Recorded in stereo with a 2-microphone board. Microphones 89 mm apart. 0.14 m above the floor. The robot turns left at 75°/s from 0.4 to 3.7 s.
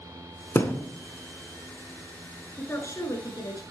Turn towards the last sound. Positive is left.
turn(degrees=70)